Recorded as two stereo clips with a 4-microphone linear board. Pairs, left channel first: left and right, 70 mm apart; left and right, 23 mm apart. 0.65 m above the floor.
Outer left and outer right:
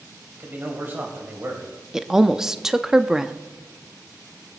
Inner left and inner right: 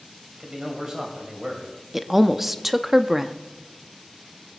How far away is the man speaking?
About 3 m.